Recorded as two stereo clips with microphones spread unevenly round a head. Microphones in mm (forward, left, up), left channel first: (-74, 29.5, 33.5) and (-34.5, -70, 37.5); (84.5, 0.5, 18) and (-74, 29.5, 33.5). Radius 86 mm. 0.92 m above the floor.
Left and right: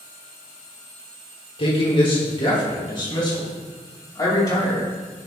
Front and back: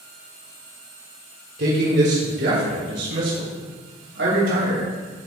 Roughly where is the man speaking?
Behind left.